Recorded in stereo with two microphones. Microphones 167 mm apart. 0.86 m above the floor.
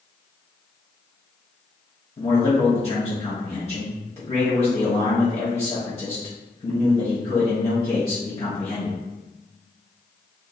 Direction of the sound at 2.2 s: 40° left (ahead or behind).